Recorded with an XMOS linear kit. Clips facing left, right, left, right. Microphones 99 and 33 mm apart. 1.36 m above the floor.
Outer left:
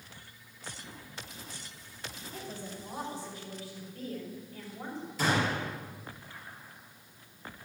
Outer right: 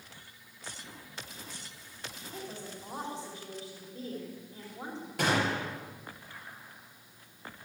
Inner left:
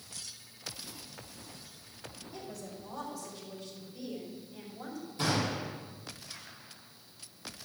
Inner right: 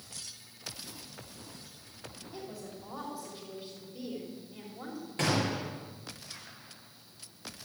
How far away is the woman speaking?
About 4.5 m.